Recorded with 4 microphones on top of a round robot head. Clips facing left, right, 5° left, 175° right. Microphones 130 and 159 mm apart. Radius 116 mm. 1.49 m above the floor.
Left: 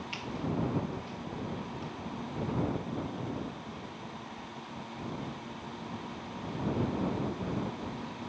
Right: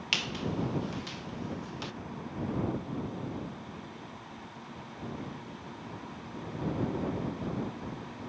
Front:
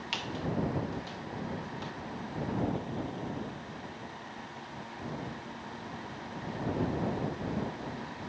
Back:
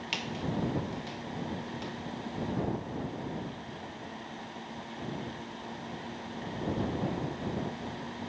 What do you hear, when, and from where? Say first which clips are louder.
0.1 s a squeak: even, front 1 dB; 95° right